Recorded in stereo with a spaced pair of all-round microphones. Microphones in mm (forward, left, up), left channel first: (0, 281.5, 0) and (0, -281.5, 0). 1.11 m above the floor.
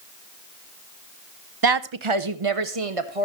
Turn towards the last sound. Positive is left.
turn(degrees=-75)  # may be behind; listen again after turning